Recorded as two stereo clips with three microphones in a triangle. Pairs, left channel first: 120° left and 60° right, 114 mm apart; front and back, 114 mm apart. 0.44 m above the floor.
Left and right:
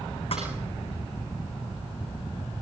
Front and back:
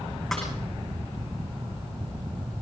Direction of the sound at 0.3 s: 90° left.